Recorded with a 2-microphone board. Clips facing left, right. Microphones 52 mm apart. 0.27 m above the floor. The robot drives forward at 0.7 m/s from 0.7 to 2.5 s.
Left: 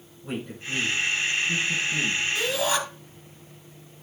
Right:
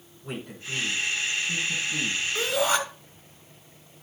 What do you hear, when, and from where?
0.2 s a man speaking: centre (ahead or behind), 7 m
2.4 s a shout: 30° right (ahead or behind), 3 m